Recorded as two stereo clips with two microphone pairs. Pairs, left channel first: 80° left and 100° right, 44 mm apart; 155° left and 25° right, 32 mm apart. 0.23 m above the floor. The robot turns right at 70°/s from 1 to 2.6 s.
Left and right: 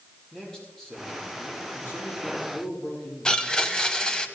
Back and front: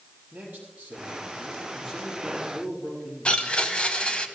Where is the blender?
140° left, 1.1 m.